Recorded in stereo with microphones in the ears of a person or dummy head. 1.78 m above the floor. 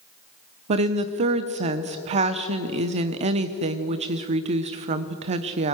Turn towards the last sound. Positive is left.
turn(degrees=-30)  # may be behind; listen again after turning